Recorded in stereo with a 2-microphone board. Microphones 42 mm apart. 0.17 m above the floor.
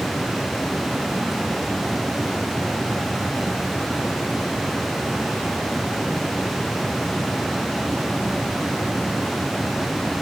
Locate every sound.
Only background noise.